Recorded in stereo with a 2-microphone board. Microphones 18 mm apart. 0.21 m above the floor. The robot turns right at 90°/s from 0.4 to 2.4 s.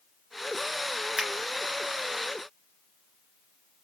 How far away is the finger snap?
About 2.5 m.